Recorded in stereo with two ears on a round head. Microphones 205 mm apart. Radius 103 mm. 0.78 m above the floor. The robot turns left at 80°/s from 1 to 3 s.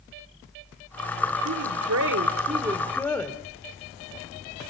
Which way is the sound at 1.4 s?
60° right.